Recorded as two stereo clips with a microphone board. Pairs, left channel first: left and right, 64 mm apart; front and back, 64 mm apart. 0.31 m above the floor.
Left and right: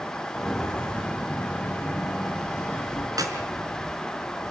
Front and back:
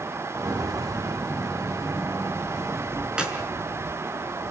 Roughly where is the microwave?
I don't hear a microwave.